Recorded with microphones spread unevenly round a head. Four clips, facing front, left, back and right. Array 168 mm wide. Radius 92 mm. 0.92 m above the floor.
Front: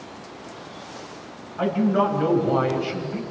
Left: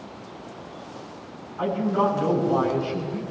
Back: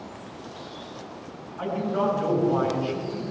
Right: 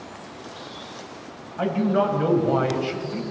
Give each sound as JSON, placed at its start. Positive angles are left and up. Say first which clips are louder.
{"t": 1.6, "sound": "a man speaking", "louder": "right 1 dB, front 5 dB", "azimuth_deg": -50, "distance_m": 6.5}